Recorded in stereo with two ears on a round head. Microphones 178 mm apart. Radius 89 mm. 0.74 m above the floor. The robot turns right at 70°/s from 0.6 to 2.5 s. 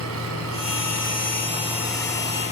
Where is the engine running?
95° right, 6 m; by 2.5 s 35° left, 6 m.